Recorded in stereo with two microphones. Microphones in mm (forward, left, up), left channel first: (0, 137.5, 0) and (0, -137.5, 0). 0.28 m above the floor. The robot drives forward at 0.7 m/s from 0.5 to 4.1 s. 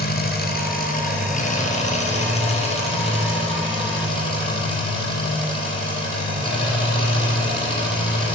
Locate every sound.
0.0 s an engine running: 35° left (ahead or behind), 2.5 m; by 8.4 s 20° left (ahead or behind), 5 m